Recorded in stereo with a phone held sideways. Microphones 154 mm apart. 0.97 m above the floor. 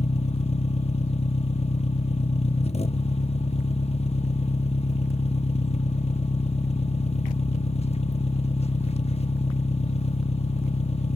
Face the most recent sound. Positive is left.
turn(degrees=40)  # may be behind; listen again after turning